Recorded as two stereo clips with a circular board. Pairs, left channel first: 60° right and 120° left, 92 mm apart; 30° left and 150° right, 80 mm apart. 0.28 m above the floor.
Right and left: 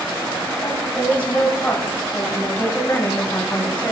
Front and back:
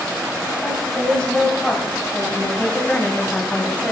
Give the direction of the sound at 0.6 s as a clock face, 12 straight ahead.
1 o'clock.